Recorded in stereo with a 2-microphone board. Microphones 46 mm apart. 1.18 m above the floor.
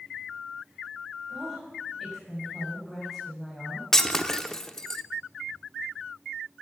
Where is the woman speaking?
5° left (ahead or behind), 8 m.